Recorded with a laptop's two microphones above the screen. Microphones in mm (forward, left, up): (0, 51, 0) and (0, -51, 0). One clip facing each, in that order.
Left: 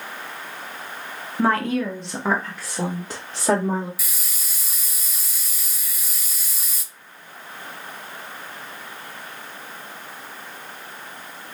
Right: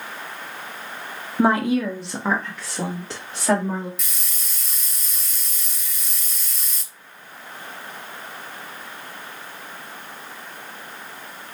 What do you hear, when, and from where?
1.4 s a woman speaking: 20° right (ahead or behind), 0.9 m; by 3.9 s 20° left (ahead or behind), 2.5 m
4.0 s a hiss: 5° left (ahead or behind), 0.8 m